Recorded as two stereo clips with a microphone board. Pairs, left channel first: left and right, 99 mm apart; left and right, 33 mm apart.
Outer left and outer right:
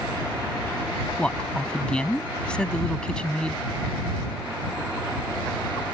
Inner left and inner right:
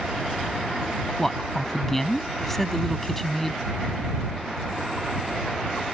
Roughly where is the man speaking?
Centre.